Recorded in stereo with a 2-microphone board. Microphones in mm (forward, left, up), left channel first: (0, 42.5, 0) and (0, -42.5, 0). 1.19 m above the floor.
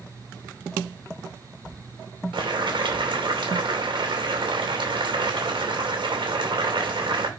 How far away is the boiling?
About 2.5 m.